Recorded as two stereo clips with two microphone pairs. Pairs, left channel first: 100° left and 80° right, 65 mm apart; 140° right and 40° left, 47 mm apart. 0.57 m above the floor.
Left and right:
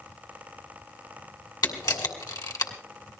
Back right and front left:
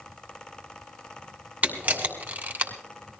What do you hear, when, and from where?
1.6 s a camera shutter: 100° left, 2.5 m